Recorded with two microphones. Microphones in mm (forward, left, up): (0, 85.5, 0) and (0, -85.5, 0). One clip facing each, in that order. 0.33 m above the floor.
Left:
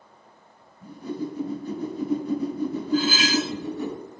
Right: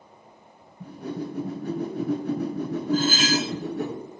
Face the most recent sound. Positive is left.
turn(degrees=-50)  # may be behind; listen again after turning